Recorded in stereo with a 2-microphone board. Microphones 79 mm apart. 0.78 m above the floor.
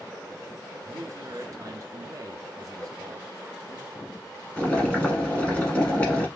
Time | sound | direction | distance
0.8 | a man speaking | 45° right (ahead or behind) | 0.8 m
2.8 | a whoosh | 10° left (ahead or behind) | 1.4 m
4.6 | boiling | 15° left (ahead or behind) | 1.3 m